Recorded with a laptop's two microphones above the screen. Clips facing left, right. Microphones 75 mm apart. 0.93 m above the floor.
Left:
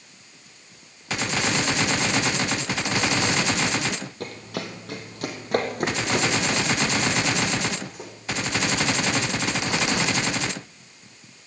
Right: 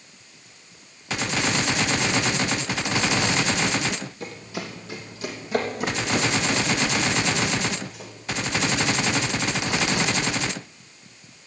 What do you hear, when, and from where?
4.2 s running footsteps: 60° left (ahead or behind), 2.0 m; by 8.1 s 50° left (ahead or behind), 4 m